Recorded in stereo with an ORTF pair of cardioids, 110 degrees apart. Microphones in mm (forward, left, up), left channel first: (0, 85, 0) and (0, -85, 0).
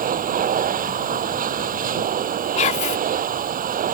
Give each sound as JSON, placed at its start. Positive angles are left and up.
{"t": 0.0, "sound": "a machine running", "azimuth_deg": -50}
{"t": 2.6, "sound": "whispering", "azimuth_deg": 45}